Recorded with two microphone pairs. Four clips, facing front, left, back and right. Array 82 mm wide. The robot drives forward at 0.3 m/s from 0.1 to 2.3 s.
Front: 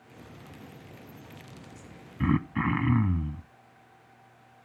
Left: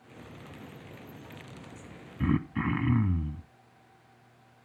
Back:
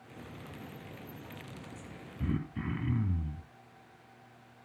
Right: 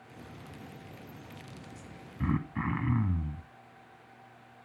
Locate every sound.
2.2 s throat clearing: 10° left, 0.6 m